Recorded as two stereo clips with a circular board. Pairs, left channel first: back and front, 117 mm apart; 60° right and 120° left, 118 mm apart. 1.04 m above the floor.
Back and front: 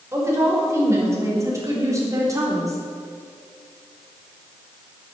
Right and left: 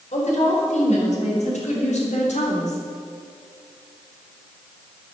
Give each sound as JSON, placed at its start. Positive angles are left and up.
{"t": 0.1, "sound": "a woman speaking", "azimuth_deg": -65, "distance_m": 5.0}